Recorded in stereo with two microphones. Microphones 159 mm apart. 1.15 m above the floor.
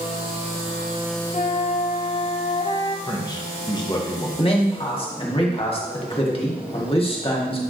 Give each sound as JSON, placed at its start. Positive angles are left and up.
{"t": 1.3, "sound": "a flute", "side_deg": 40, "distance_m": 1.2}
{"t": 3.1, "sound": "a man speaking", "side_deg": 25, "distance_m": 1.3}
{"t": 4.4, "sound": "a man speaking", "side_deg": 35, "distance_m": 1.7}